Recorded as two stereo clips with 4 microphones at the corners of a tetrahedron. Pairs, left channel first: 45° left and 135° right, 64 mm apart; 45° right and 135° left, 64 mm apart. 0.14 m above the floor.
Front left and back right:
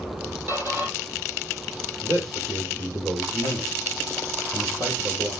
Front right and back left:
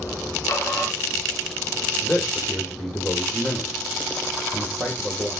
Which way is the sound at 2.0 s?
105° right.